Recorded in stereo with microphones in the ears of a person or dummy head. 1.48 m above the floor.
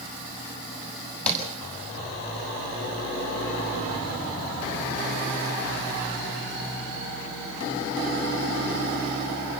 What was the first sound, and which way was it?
Tapping, 10° left (ahead or behind).